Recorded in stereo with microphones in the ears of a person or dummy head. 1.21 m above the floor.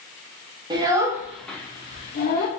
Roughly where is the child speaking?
Right.